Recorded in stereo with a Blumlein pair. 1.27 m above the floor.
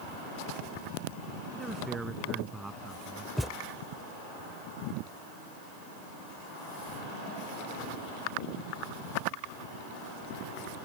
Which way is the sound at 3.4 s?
5° left.